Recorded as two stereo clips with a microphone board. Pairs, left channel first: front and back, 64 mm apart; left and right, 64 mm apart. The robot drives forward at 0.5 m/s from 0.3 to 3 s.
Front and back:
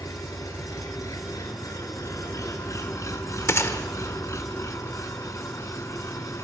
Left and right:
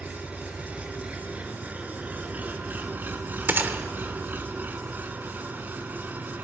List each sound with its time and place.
0.0 s an engine running: 20° right, 3 m; by 6.5 s 30° right, 1.8 m
3.5 s a gunshot: 35° right, 1.2 m